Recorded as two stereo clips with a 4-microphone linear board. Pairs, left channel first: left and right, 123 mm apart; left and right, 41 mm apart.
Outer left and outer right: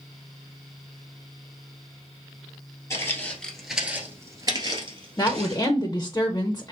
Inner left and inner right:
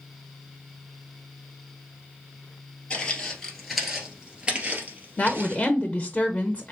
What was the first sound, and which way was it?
Footsteps, 25° left (ahead or behind).